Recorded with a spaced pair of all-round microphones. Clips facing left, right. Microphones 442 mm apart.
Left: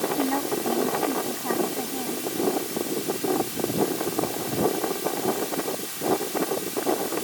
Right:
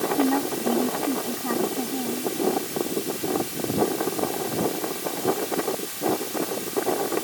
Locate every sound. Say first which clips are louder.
0.2 s a woman speaking: right 3 dB; 25° right (ahead or behind)